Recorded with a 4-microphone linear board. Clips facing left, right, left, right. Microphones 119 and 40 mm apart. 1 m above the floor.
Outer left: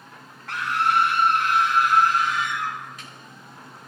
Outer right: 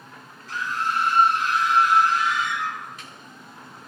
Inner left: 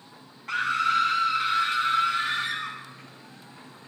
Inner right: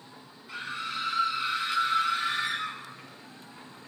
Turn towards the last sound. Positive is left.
turn(degrees=50)  # may be behind; listen again after turning